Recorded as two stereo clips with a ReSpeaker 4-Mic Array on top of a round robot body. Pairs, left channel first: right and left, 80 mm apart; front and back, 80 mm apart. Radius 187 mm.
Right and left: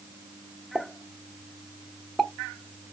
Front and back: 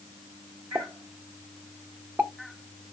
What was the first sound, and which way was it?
A pop, 175° right.